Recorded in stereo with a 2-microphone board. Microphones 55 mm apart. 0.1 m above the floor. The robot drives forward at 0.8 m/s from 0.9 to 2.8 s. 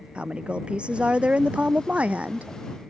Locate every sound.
0.1 s a woman speaking: 20° right (ahead or behind); by 2.5 s 25° right (ahead or behind)